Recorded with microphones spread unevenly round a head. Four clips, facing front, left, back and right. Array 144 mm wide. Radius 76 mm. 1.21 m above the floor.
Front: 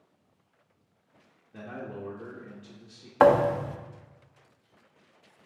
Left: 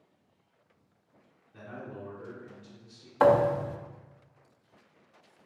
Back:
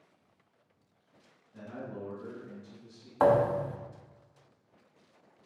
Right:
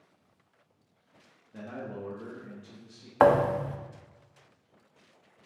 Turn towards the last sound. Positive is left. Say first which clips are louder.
# even, front 4 dB
turn(degrees=-40)